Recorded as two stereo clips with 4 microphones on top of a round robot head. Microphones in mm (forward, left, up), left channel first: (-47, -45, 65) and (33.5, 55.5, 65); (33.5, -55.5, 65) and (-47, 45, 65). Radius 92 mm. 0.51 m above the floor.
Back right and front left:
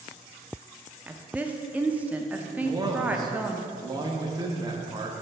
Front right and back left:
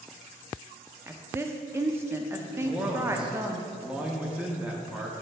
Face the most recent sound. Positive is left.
turn(degrees=55)